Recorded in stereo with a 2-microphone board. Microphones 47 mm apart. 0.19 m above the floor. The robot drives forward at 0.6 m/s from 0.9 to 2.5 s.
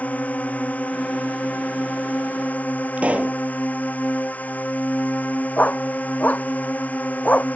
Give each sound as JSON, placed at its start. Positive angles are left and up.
{"t": 0.0, "sound": "a drone", "side_deg": 35}
{"t": 3.0, "sound": "a pop", "side_deg": -30}
{"t": 5.6, "sound": "a dog barking", "side_deg": 35}